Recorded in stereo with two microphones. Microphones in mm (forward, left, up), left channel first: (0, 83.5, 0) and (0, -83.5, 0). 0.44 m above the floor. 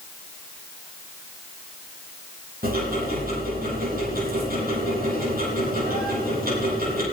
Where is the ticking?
60° right (ahead or behind), 6.5 m.